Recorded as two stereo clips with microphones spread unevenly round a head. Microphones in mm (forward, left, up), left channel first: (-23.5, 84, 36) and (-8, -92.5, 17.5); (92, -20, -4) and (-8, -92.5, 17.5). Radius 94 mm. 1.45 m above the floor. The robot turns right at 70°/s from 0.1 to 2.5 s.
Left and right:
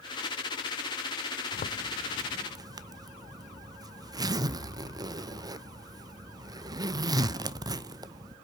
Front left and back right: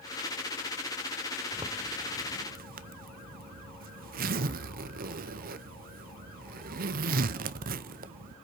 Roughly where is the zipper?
Behind left.